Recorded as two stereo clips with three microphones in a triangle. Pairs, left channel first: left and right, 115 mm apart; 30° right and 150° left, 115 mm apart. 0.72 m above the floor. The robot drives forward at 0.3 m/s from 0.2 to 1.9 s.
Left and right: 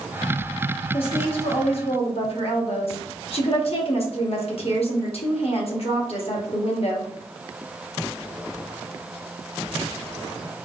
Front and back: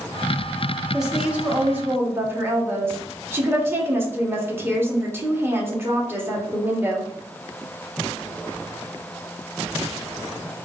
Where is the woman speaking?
65° left, 1.0 m; by 7.1 s 85° left, 0.9 m.